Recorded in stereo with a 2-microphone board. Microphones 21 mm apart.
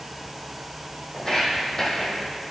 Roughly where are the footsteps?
Left.